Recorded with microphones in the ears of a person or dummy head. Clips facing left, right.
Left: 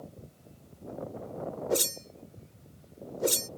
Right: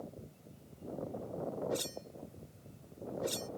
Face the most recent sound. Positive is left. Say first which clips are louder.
# left 7 dB
turn(degrees=60)  # may be behind; listen again after turning